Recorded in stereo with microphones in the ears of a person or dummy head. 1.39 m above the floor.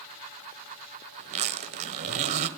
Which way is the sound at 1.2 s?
40° right (ahead or behind).